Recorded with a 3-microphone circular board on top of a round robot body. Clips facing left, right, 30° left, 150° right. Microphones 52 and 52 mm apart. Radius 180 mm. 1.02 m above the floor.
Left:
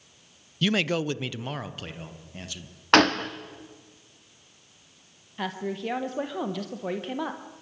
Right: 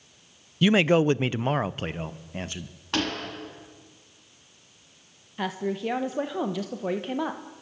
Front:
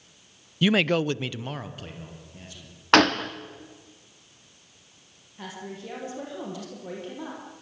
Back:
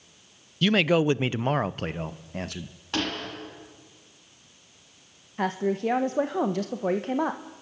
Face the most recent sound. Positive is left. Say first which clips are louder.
# right 2 dB, back 13 dB
turn(degrees=180)